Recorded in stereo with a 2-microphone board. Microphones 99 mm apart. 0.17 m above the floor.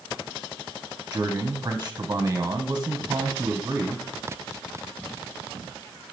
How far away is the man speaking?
About 1.1 m.